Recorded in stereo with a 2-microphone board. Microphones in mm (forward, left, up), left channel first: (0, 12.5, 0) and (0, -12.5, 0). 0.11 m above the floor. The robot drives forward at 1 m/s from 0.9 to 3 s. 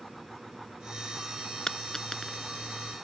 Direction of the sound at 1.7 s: 25° left (ahead or behind).